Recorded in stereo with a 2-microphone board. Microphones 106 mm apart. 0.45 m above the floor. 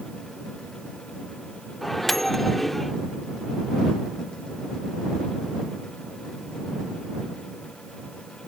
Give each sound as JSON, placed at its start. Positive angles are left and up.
{"t": 1.8, "sound": "a microwave", "side_deg": 0}